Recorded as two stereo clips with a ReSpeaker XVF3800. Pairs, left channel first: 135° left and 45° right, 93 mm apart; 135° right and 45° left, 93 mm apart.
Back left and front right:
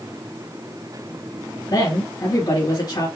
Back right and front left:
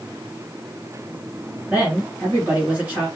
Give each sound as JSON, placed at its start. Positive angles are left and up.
{"t": 1.7, "sound": "a woman speaking", "azimuth_deg": 115, "distance_m": 2.5}